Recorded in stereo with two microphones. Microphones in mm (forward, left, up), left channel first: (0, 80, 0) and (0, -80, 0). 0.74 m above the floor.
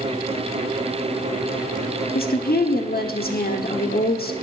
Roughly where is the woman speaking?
Left.